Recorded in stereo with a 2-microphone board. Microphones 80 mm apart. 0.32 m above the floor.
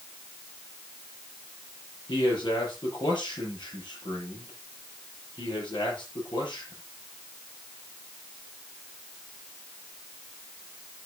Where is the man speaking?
75° left (ahead or behind), 7.5 m.